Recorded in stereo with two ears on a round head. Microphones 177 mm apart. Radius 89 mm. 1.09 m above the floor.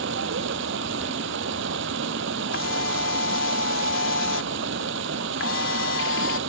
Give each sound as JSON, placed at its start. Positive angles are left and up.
{"t": 0.0, "sound": "running water", "side_deg": -65}
{"t": 2.5, "sound": "a camera shutter", "side_deg": 70}